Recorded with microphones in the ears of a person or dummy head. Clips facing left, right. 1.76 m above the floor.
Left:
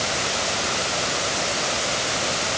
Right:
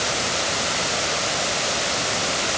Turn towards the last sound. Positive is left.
No sound to turn to.